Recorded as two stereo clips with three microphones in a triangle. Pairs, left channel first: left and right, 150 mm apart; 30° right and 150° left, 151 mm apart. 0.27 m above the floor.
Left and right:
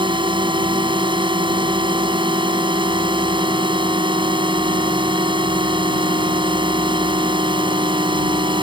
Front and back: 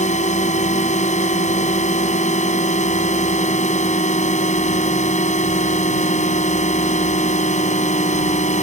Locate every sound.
0.0 s a drone: 40° right